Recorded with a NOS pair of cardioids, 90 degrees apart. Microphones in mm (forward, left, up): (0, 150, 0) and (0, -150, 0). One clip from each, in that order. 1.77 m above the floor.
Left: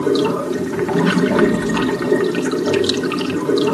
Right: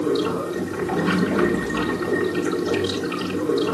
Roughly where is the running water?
Ahead left.